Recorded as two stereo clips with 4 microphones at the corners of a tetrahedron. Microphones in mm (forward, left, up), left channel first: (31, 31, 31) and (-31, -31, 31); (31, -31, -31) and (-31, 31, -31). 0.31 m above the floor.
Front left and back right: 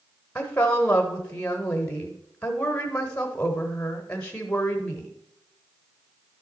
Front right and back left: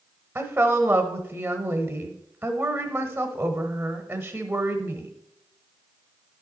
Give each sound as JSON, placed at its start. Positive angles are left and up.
{"t": 0.3, "sound": "a woman speaking", "azimuth_deg": 100, "distance_m": 0.9}